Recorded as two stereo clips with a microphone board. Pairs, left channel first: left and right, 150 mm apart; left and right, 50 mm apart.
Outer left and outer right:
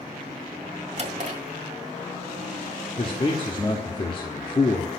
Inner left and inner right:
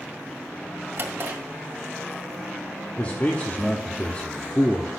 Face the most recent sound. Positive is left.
turn(degrees=35)  # may be behind; listen again after turning